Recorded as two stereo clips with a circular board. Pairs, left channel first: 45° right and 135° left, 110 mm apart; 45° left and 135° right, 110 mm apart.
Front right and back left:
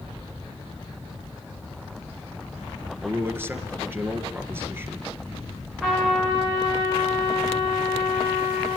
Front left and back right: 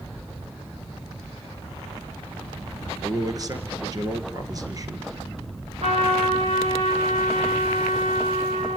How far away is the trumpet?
About 9.5 m.